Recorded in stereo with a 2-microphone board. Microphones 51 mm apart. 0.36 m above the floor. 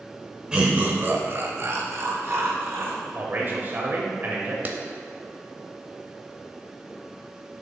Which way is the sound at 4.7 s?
35° right (ahead or behind).